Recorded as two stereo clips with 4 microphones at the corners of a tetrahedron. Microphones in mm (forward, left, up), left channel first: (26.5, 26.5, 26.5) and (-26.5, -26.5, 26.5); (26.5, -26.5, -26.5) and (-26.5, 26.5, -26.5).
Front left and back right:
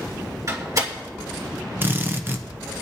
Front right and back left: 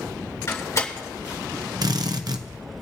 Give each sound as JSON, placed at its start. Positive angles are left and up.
{"t": 0.5, "sound": "a door slam", "azimuth_deg": -95, "distance_m": 2.5}
{"t": 1.8, "sound": "a drill", "azimuth_deg": 165, "distance_m": 0.8}